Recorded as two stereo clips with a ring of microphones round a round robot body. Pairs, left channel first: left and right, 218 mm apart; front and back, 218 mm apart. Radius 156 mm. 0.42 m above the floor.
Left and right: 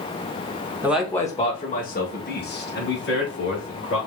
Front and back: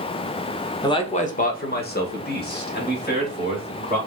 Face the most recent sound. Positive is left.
turn(degrees=45)